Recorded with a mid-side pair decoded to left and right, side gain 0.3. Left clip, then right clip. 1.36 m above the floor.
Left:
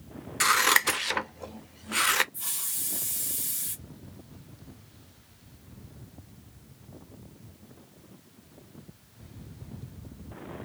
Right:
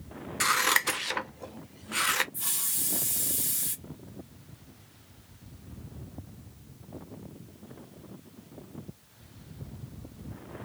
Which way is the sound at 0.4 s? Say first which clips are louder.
Left 3 dB; 35° left.